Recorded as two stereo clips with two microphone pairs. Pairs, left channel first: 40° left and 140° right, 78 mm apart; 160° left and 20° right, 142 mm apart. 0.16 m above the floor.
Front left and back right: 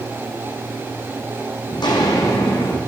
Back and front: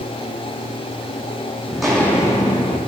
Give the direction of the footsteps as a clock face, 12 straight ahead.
10 o'clock.